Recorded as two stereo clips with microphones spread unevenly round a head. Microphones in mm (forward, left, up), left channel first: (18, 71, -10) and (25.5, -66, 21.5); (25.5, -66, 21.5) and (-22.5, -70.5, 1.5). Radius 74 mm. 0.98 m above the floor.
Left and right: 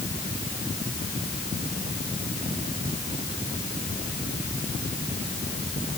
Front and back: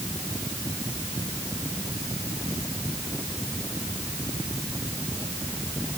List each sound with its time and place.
Only background noise.